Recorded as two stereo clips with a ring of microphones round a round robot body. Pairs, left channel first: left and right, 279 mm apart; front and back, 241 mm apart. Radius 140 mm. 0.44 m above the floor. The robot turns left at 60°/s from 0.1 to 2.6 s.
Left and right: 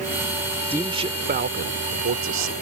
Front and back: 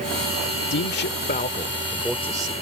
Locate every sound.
0.7 s a man speaking: 10° right; by 2.5 s 115° right